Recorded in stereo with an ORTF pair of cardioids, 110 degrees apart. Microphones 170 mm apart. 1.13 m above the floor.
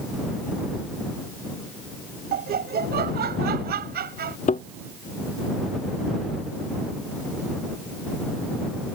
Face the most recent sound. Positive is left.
turn(degrees=45)